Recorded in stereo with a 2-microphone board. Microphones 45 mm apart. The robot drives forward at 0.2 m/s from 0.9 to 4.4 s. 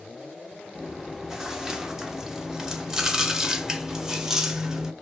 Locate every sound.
0.8 s chewing: 10° right (ahead or behind), 0.8 m